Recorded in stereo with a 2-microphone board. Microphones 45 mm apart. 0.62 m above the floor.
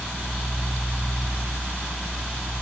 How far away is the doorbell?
No doorbell in this recording.